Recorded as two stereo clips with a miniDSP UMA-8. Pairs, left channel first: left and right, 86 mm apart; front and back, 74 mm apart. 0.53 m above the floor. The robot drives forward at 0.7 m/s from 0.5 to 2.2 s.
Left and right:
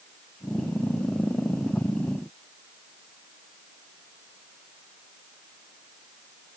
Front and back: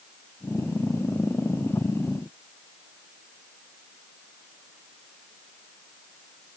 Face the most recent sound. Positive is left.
No sound to turn to.